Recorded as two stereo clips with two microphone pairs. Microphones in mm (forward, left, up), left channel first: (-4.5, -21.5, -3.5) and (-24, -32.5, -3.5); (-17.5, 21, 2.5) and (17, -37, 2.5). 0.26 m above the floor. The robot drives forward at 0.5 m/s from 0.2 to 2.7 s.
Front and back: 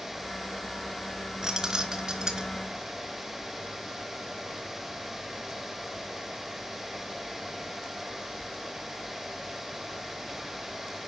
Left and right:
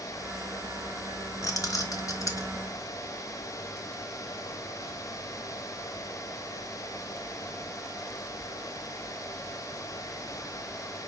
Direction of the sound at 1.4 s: 150° left.